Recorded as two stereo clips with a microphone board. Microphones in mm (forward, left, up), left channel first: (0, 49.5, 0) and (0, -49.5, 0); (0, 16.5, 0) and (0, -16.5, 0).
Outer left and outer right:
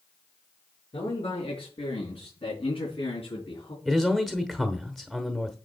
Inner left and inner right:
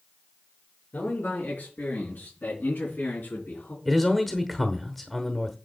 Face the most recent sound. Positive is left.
turn(degrees=5)  # may be behind; listen again after turning